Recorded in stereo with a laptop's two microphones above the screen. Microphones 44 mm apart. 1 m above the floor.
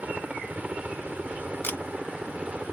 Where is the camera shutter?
50° left (ahead or behind).